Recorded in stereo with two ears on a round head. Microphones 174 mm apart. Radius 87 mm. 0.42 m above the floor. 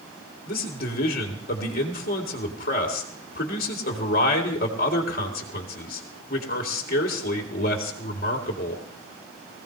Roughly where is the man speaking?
Left.